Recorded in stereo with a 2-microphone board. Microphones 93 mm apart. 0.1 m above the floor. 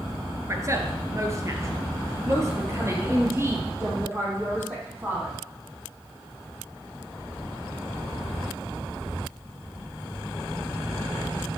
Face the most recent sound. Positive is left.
turn(degrees=-25)  # may be behind; listen again after turning